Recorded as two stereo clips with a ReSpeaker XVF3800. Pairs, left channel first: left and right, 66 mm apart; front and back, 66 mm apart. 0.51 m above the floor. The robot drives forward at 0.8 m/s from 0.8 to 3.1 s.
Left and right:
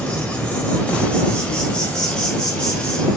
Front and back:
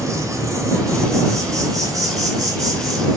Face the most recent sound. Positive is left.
turn(degrees=165)